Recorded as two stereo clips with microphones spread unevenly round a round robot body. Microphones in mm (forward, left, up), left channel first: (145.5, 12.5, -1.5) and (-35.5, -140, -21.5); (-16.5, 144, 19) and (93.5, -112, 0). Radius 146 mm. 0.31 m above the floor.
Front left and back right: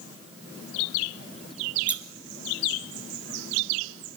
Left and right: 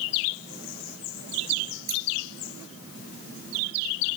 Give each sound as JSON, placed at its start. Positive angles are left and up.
{"t": 1.9, "sound": "scissors", "azimuth_deg": -55, "distance_m": 2.5}